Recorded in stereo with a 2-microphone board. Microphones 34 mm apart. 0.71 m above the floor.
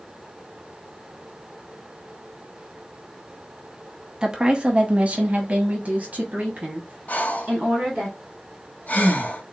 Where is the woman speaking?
25° right (ahead or behind), 0.9 m; by 8.1 s 45° right (ahead or behind), 1.8 m.